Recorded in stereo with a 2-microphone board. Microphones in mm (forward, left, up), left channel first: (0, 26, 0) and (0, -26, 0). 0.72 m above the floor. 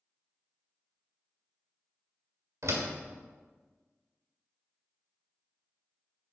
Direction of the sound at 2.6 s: 75° right (ahead or behind).